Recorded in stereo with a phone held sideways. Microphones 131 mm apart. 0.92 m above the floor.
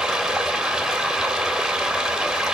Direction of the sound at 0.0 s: 5° right (ahead or behind).